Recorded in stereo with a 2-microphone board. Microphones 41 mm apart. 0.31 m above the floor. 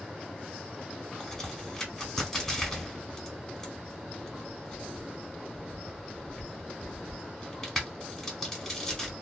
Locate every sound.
1.2 s a crack: 10° left (ahead or behind), 1.5 m